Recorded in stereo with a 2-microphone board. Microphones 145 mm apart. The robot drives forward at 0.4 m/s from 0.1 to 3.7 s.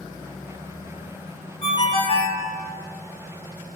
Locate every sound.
1.6 s a ringtone: 45° left (ahead or behind), 0.7 m; by 2.4 s 40° left (ahead or behind), 0.8 m